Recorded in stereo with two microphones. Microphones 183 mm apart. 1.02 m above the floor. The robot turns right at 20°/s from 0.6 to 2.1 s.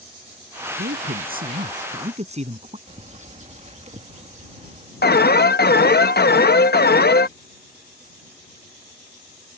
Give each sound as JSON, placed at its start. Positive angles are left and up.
{"t": 0.8, "sound": "a man speaking", "side_deg": -65}
{"t": 2.9, "sound": "a bird", "side_deg": -40}
{"t": 5.0, "sound": "an alarm", "side_deg": 60}